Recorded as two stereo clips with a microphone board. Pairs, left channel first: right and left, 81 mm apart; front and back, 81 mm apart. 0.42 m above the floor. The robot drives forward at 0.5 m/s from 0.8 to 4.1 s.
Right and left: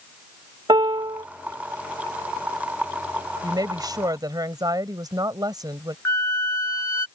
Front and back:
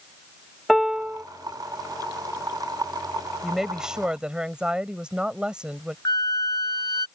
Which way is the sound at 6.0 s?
35° right.